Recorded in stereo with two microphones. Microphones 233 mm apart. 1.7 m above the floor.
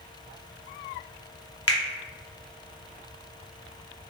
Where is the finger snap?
75° left (ahead or behind), 0.6 m.